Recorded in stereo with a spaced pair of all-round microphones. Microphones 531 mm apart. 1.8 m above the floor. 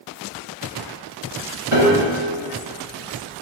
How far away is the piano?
About 2.0 m.